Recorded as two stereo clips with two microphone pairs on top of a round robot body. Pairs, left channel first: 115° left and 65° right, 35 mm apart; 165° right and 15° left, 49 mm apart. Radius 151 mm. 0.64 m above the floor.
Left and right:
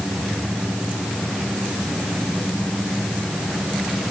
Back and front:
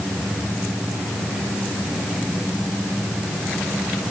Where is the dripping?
No dripping in this recording.